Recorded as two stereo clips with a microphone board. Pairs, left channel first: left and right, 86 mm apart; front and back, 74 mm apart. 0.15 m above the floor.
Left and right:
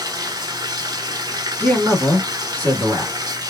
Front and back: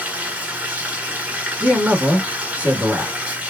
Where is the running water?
115° right, 0.7 m.